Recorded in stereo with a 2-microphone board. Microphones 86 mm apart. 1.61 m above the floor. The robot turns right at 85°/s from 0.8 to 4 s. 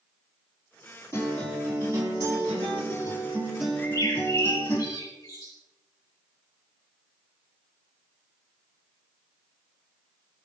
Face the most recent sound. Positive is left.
turn(degrees=40)  # may be behind; listen again after turning